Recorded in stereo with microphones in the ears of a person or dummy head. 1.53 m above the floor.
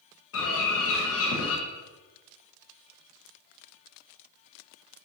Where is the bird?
75° left (ahead or behind), 0.5 m.